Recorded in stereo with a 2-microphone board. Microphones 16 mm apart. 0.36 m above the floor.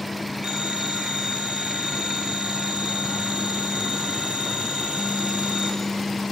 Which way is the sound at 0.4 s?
65° right (ahead or behind).